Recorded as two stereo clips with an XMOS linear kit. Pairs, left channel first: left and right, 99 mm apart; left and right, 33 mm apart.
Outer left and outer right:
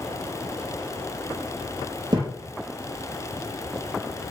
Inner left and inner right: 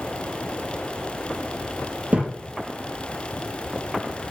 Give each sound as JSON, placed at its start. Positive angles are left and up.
{"t": 2.1, "sound": "a thud", "side_deg": -45, "distance_m": 2.5}